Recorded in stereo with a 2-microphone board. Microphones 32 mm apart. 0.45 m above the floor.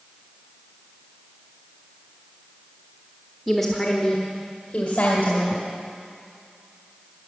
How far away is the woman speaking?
About 1.2 m.